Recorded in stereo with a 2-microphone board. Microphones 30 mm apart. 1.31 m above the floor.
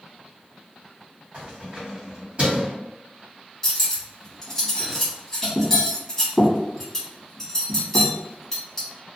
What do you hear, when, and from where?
1.3 s keys jangling: 40° right (ahead or behind), 1.5 m
3.6 s cutlery clinking: 10° left (ahead or behind), 1.2 m